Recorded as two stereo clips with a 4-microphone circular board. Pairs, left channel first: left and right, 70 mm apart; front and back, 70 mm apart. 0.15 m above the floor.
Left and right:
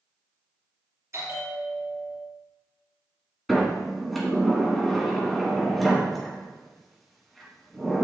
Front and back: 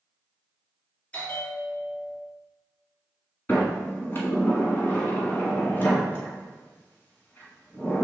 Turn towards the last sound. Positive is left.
turn(degrees=0)